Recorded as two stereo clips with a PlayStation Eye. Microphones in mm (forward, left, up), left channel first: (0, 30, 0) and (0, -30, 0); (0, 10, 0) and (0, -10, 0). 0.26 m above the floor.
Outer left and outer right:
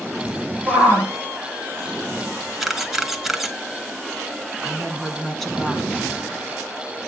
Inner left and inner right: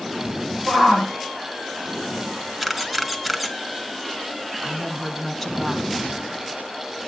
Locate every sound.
0.7 s a shout: 10° right (ahead or behind), 9.5 m
2.6 s a camera shutter: 5° right (ahead or behind), 1.5 m
4.6 s a woman speaking: 5° left (ahead or behind), 2.5 m